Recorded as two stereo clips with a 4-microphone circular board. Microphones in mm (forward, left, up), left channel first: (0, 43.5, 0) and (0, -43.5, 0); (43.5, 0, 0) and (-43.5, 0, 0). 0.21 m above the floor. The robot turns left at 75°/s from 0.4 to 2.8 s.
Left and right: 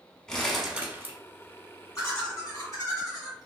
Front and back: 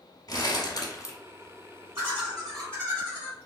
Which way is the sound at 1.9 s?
130° left.